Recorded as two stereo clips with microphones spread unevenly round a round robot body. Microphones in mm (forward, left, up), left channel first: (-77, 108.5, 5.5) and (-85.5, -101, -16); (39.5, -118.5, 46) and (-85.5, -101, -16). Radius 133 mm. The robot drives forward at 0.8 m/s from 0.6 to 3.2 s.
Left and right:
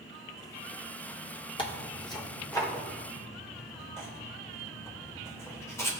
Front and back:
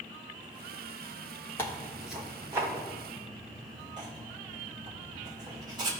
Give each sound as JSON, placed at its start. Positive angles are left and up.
{"t": 1.6, "sound": "tearing paper", "azimuth_deg": 120, "distance_m": 1.1}